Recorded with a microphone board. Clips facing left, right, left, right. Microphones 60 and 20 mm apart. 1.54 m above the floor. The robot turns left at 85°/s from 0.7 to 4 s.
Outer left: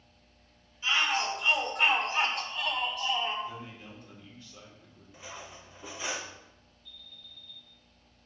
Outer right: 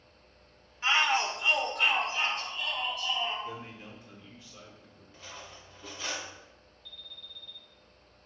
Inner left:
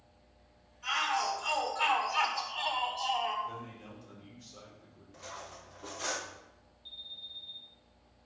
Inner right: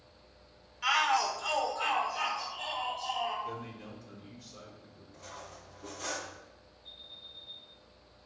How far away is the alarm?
About 2.5 m.